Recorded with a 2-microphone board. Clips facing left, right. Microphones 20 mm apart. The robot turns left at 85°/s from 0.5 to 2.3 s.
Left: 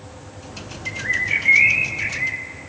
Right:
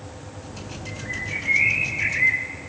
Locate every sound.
0.9 s a bird: 95° left, 0.8 m; by 2.5 s 30° right, 0.8 m